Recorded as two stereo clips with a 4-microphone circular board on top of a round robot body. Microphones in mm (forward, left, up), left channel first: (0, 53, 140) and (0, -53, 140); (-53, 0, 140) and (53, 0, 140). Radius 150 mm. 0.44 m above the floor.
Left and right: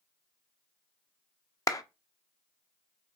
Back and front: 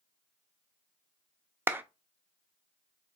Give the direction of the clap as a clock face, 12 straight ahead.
10 o'clock.